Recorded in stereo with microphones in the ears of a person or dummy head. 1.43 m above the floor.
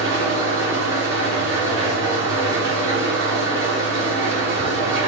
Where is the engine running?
65° right (ahead or behind), 1.0 m.